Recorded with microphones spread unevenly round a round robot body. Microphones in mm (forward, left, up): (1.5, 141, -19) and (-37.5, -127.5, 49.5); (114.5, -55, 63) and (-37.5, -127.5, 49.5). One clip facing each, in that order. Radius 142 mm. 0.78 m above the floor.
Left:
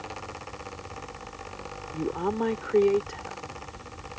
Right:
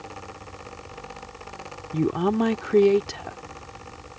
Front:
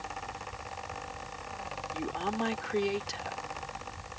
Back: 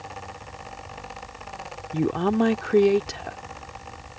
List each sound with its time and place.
1.9 s a woman speaking: 130° right